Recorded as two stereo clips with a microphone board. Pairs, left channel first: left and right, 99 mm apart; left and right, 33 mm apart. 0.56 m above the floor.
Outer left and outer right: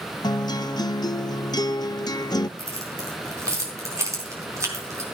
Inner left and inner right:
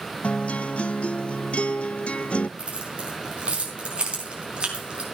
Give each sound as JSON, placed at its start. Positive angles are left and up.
{"t": 0.2, "sound": "a guitar", "side_deg": 40, "distance_m": 0.5}
{"t": 2.6, "sound": "keys jangling", "side_deg": -30, "distance_m": 4.0}